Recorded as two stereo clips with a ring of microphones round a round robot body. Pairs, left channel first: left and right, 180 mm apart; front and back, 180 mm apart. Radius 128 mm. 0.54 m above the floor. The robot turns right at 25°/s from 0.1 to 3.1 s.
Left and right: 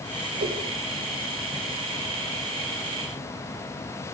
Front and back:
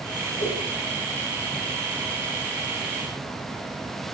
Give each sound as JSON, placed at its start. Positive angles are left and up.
{"t": 0.4, "sound": "a whoosh", "azimuth_deg": -65, "distance_m": 2.0}